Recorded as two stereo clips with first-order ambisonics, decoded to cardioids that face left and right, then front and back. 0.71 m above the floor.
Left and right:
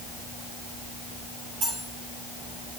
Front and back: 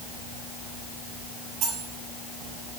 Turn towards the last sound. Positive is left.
turn(degrees=-135)